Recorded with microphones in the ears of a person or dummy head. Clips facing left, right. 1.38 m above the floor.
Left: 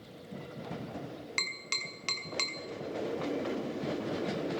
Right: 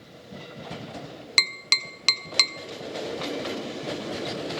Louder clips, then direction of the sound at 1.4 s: Right 5 dB; 70° right (ahead or behind).